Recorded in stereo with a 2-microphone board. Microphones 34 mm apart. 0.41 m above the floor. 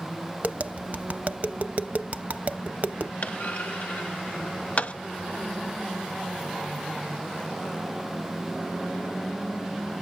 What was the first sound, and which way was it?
Tapping, 50° right (ahead or behind).